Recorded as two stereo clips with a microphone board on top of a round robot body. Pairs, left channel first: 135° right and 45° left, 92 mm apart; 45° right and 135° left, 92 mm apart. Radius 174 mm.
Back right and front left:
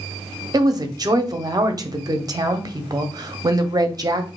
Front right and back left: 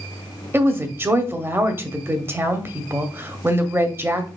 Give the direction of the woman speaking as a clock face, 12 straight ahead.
9 o'clock.